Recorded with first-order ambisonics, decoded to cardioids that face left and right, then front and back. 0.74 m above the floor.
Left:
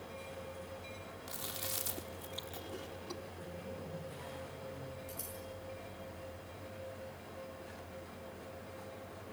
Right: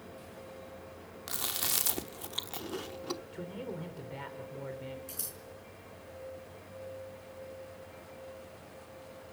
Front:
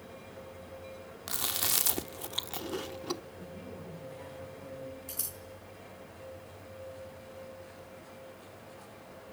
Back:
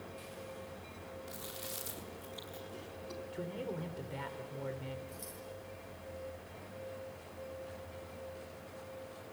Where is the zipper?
I don't hear a zipper.